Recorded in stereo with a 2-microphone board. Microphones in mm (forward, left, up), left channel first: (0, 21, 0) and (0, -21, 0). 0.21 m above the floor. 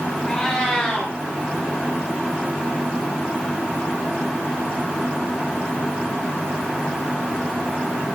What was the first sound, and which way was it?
A cat meowing, 15° left (ahead or behind).